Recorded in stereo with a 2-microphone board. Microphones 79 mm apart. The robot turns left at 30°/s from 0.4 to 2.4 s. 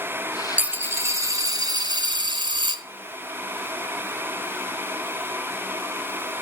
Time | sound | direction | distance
0.6 | a dropped coin | 20° right | 0.8 m